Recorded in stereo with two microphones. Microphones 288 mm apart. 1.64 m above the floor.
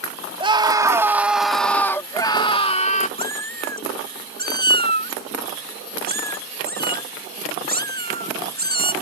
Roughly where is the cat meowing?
Right.